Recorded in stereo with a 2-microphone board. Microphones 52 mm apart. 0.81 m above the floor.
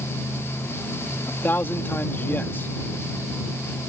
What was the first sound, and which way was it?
A man speaking, 35° left (ahead or behind).